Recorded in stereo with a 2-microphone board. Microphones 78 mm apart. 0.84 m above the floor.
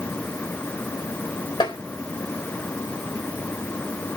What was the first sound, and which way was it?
Tapping, 80° left.